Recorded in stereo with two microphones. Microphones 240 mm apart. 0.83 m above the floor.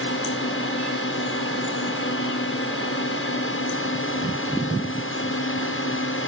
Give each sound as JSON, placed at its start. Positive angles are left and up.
{"t": 0.0, "sound": "a drone", "side_deg": 60}